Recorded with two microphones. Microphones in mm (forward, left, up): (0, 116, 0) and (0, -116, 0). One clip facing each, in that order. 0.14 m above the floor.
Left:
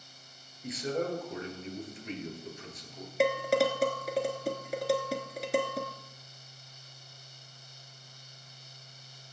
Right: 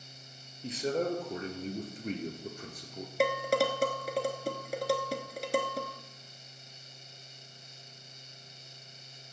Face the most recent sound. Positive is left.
turn(degrees=0)  # may be behind; listen again after turning